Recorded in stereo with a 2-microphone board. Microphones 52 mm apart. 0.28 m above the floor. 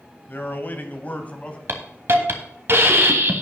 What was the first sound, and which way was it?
A man speaking, 40° left (ahead or behind).